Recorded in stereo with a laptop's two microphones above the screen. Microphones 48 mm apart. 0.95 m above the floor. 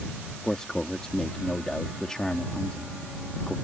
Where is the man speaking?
15° left (ahead or behind).